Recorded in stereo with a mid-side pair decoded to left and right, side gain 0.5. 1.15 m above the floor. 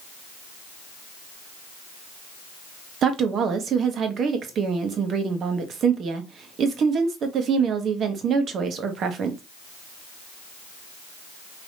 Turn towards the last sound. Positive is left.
turn(degrees=-55)